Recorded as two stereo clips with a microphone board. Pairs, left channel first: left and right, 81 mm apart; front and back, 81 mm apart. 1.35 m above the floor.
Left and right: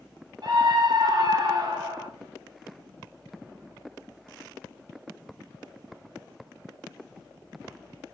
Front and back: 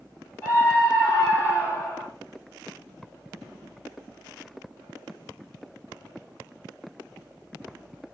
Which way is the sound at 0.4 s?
60° right.